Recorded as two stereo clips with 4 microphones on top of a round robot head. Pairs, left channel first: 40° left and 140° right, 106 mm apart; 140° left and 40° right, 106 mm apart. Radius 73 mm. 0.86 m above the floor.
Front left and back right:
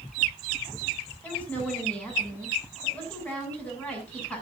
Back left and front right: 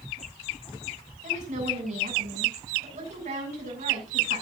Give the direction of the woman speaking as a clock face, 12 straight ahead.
1 o'clock.